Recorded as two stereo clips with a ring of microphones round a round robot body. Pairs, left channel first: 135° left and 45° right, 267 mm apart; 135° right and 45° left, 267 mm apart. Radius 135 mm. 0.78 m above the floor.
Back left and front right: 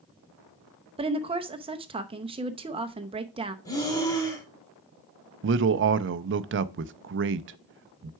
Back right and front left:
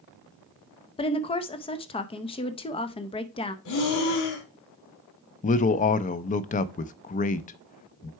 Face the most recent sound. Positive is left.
turn(degrees=-80)